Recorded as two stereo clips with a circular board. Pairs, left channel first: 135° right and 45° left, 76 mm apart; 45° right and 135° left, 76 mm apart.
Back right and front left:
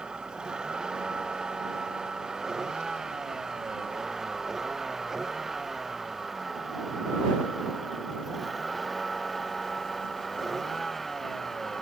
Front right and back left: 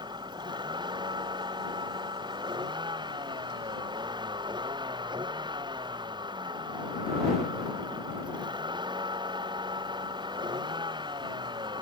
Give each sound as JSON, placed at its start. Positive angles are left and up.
{"t": 0.0, "sound": "a vehicle", "azimuth_deg": 125}